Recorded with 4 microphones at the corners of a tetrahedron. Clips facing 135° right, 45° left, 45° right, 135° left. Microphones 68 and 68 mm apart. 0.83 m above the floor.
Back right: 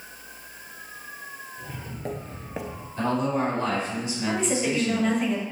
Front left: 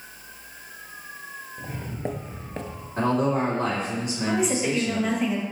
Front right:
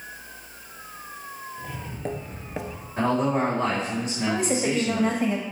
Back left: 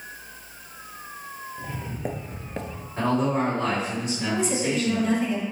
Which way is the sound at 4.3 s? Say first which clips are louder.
Front left 1 dB, front right 1 dB; 40° right.